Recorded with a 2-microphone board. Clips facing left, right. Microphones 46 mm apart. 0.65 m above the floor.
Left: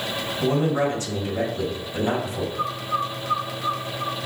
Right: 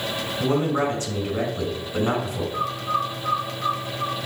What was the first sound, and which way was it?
A man speaking, 35° right (ahead or behind).